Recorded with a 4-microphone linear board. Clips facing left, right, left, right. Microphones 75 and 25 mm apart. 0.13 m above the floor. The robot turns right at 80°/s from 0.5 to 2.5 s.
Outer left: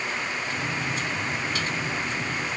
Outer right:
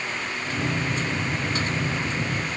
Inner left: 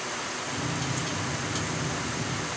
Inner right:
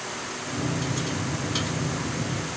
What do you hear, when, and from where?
Only background noise.